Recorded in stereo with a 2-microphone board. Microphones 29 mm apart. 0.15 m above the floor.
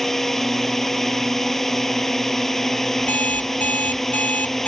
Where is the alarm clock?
65° left (ahead or behind).